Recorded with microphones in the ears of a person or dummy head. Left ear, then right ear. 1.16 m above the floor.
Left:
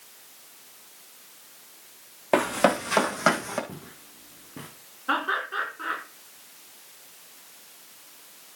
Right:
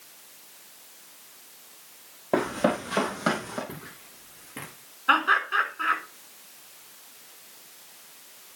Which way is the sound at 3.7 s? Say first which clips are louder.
Right 2 dB; 55° right (ahead or behind).